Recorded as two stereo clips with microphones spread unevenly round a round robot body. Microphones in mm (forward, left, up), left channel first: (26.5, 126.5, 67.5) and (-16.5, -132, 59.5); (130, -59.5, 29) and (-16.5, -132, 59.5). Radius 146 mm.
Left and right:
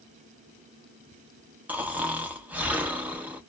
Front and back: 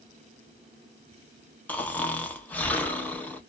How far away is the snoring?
About 0.9 m.